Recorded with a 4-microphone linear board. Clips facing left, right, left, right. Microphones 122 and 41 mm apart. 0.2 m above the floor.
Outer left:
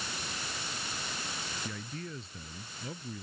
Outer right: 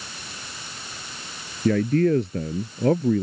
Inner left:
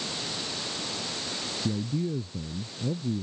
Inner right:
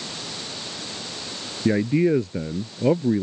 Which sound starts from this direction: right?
A man speaking, at 1.6 s.